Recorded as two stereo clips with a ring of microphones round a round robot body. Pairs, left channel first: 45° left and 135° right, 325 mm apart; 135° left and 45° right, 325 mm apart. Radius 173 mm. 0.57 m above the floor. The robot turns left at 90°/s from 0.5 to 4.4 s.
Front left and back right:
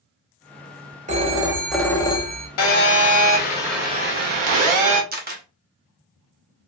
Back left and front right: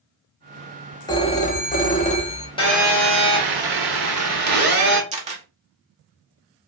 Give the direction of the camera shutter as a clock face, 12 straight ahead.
3 o'clock.